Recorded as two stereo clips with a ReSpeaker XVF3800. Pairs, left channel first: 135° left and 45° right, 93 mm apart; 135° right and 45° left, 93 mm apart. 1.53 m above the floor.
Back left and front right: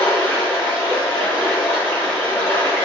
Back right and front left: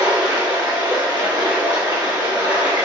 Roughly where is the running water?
Left.